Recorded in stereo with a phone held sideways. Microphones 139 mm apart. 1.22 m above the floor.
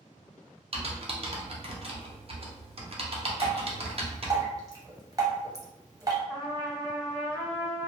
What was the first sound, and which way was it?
Typing on a keyboard, 45° right (ahead or behind).